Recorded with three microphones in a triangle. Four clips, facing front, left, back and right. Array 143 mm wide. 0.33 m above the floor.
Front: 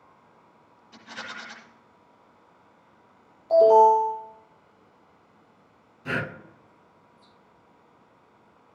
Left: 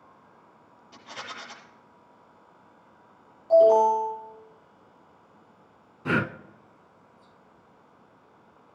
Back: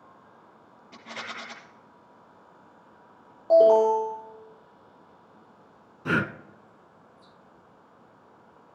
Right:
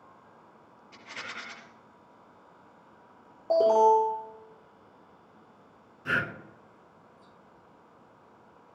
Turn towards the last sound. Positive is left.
turn(degrees=130)